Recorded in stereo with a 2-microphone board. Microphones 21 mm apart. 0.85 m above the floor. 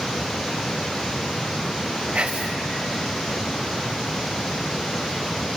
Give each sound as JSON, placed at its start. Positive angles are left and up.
{"t": 2.1, "sound": "whispering", "side_deg": -55, "distance_m": 1.4}